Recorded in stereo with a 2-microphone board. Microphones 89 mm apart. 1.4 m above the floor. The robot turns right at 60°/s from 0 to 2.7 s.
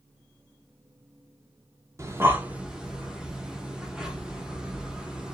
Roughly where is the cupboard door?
No cupboard door in this recording.